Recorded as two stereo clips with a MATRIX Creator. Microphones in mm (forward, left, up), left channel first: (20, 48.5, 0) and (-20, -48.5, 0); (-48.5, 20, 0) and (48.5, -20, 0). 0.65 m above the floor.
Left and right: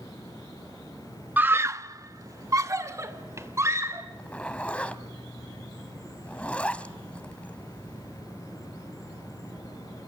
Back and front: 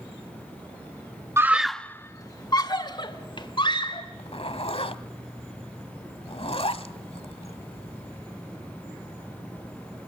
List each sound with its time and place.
1.4 s a scream: 55° right, 0.7 m; by 4.0 s 170° right, 3 m
4.1 s a zipper: 145° left, 1.2 m